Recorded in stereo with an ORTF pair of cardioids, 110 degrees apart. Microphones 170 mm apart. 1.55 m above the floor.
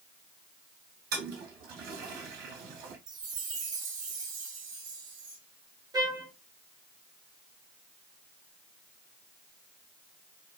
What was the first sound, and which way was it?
A toilet flushing, 70° right.